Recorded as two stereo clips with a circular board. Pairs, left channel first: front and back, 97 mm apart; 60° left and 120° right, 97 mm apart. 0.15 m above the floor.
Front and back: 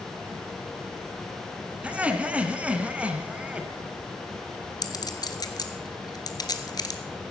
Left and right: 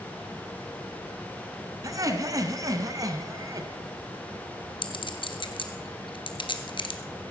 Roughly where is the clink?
Ahead left.